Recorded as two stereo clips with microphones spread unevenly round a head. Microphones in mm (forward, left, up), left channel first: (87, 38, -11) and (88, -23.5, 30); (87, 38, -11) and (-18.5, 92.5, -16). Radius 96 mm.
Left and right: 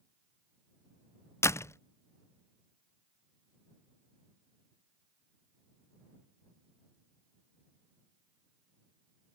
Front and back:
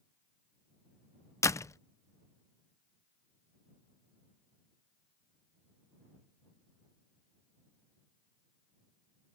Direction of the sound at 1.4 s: 20° left.